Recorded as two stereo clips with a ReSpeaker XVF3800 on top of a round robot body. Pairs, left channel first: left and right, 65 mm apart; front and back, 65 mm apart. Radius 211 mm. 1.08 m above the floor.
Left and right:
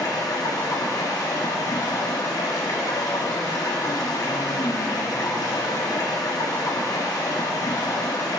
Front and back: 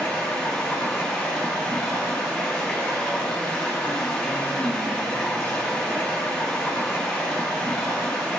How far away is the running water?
About 2 m.